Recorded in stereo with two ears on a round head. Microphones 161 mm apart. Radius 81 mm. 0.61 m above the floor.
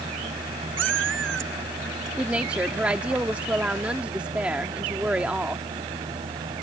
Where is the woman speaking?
10° right (ahead or behind).